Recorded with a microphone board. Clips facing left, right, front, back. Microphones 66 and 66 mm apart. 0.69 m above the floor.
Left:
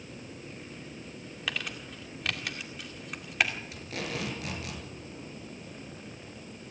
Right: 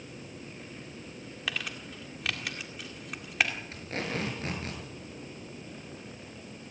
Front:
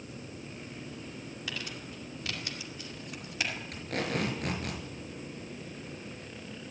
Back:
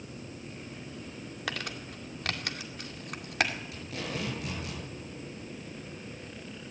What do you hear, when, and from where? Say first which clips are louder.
1.5 s crumpling: even, back 5 dB; straight behind, 2 m
3.7 s tape being pulled: right 2 dB, front 4 dB; 35° right, 6 m